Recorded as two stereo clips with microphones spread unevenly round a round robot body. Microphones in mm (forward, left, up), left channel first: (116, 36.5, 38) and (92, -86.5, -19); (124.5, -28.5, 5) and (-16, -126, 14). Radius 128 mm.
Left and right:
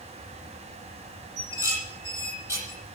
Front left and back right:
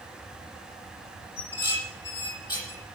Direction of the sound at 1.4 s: 30° right.